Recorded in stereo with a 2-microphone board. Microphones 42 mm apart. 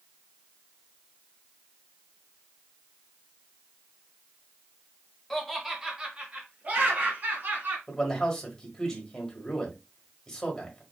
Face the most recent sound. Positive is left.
turn(degrees=15)  # may be behind; listen again after turning